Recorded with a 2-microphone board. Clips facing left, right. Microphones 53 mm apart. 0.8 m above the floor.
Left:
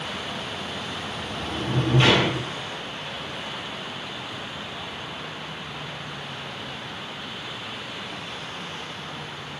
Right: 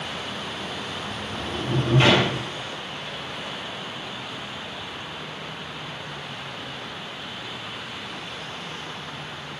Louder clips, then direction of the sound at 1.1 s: Even; 30° right (ahead or behind).